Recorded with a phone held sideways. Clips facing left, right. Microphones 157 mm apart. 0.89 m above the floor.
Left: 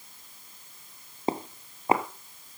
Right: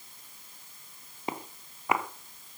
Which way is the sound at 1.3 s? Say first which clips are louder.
Left 7 dB; 30° left (ahead or behind).